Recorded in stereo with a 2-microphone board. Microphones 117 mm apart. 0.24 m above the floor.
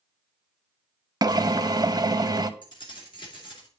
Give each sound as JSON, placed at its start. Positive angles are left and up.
{"t": 1.2, "sound": "a drill", "side_deg": -35, "distance_m": 0.5}
{"t": 2.6, "sound": "keys jangling", "side_deg": 45, "distance_m": 2.5}